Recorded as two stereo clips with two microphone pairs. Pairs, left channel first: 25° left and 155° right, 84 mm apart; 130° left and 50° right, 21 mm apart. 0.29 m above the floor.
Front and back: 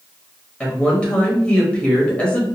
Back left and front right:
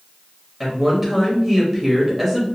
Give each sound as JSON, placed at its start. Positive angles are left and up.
{"t": 0.6, "sound": "a woman speaking", "azimuth_deg": 0, "distance_m": 0.9}